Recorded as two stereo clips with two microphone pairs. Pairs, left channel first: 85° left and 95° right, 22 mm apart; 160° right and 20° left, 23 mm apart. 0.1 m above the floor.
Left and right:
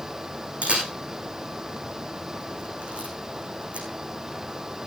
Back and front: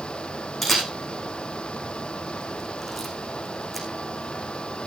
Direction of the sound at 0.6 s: 70° right.